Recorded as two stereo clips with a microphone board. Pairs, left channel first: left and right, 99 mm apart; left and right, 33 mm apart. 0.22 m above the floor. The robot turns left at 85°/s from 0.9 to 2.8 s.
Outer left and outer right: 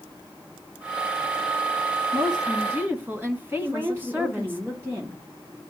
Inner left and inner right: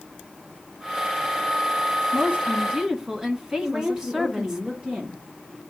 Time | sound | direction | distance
2.1 | a woman speaking | 100° right | 2.0 m
3.6 | a woman speaking | 30° right (ahead or behind) | 5.5 m